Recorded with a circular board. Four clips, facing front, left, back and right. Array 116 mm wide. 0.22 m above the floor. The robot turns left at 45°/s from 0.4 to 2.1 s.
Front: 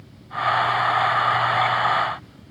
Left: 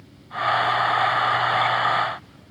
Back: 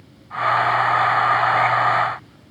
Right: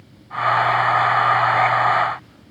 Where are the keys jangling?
I don't hear keys jangling.